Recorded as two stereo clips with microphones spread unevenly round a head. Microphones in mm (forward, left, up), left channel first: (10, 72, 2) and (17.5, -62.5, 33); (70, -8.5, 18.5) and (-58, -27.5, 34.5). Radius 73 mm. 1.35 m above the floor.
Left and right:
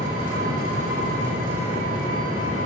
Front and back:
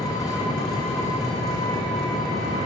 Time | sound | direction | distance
0.0 | an engine running | 60° right | 2.5 m